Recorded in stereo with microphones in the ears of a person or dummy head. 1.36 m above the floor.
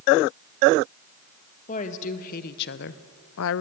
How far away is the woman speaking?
About 1.6 m.